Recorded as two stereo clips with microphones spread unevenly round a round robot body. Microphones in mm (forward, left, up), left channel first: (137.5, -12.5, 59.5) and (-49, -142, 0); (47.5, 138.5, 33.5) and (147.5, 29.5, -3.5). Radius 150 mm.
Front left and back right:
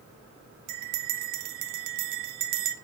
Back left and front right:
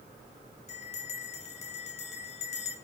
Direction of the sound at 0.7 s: 170° right.